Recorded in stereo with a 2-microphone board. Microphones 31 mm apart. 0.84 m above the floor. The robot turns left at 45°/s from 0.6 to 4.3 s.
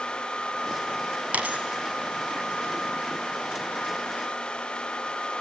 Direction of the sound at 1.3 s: 50° right (ahead or behind).